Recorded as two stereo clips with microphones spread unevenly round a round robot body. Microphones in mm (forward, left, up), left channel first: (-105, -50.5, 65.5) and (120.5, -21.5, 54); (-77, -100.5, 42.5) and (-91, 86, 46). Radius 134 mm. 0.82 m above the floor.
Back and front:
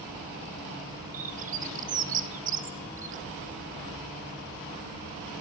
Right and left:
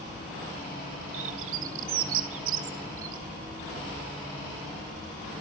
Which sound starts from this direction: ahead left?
A bird, at 1.1 s.